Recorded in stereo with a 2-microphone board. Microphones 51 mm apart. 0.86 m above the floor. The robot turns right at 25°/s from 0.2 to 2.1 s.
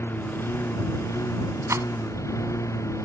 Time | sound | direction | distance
0.0 | a lawn mower | 45° left | ?
1.7 | a rattle | 80° right | ?